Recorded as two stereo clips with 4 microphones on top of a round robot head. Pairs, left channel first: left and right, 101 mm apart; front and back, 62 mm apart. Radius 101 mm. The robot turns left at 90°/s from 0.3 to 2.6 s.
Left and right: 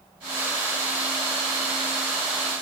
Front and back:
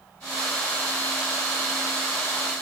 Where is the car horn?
No car horn in this recording.